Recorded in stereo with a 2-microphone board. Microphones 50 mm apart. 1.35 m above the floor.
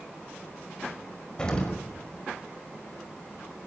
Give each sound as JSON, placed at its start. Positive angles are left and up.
{"t": 1.4, "sound": "an explosion", "side_deg": 15, "distance_m": 5.0}